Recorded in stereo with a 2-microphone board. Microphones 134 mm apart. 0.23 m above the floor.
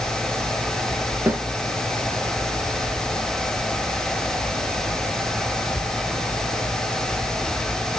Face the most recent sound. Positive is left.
turn(degrees=-15)  # may be behind; listen again after turning